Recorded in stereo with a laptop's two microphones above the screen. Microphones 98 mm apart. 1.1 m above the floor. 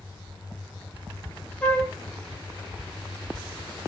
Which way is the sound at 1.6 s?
15° left (ahead or behind).